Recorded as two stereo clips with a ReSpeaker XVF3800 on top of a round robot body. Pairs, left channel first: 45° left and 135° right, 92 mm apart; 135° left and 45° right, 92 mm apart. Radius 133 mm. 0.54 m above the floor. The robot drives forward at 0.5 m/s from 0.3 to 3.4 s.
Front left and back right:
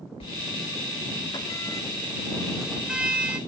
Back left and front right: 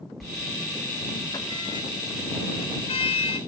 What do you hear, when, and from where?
0.2 s a sliding door: 45° left, 0.8 m; by 3.4 s 150° left, 1.2 m